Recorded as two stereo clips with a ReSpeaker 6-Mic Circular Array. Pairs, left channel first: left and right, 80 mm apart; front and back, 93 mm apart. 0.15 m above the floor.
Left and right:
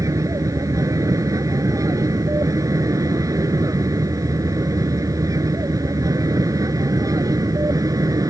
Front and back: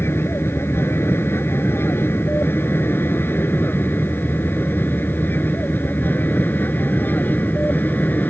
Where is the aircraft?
60° right; by 8.3 s 65° right.